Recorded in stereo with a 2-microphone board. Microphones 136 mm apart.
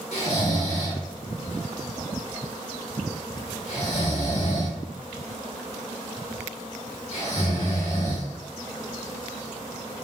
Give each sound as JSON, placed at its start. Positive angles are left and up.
{"t": 0.1, "sound": "snoring", "side_deg": 50, "distance_m": 1.3}